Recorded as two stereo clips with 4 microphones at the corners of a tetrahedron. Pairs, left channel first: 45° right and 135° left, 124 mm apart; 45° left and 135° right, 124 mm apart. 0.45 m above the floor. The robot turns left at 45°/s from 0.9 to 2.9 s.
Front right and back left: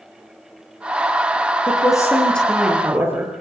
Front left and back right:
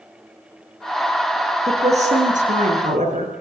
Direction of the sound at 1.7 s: 95° right.